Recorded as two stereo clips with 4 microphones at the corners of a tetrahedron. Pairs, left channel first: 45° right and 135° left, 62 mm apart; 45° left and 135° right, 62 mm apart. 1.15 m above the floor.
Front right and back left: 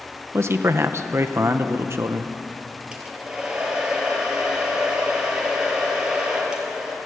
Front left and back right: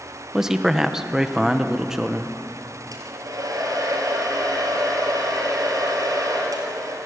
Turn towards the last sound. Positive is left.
turn(degrees=-150)